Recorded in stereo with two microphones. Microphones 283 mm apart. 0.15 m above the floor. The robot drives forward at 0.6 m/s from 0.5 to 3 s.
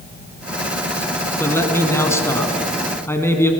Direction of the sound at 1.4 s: 10° left (ahead or behind).